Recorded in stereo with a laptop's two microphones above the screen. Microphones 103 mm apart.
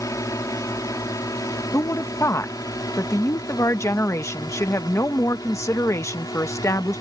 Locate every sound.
0.0 s a drone: 35° left (ahead or behind); by 7.0 s 40° left (ahead or behind)
1.7 s a woman speaking: 30° left (ahead or behind)